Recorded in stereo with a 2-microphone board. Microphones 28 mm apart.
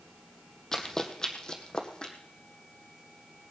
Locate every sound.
0.7 s running footsteps: 15° left (ahead or behind), 1.5 m; by 2.1 s 30° left (ahead or behind), 2 m